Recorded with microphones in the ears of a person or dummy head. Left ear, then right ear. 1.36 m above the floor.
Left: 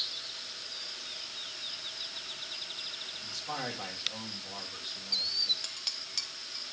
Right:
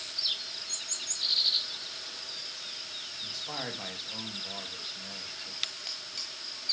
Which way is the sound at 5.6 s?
10° left (ahead or behind).